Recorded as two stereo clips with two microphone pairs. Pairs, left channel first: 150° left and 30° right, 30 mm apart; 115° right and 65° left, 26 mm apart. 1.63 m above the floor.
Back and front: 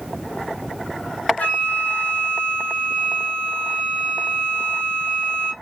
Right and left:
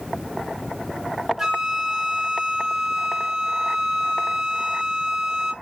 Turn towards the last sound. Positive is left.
turn(degrees=140)